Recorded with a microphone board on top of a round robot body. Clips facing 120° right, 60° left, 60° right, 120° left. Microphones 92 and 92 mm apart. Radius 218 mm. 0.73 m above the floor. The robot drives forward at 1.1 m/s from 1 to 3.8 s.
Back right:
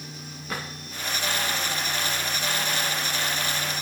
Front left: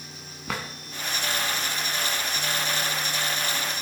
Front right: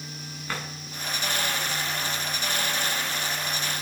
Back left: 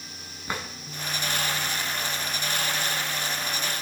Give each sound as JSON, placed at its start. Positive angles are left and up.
{"t": 0.5, "sound": "a drawer", "azimuth_deg": 45, "distance_m": 2.5}